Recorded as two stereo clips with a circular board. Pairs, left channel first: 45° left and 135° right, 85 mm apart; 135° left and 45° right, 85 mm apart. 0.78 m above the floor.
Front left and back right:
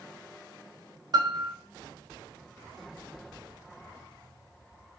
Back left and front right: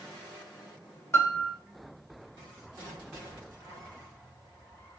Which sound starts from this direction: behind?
A piano, at 1.1 s.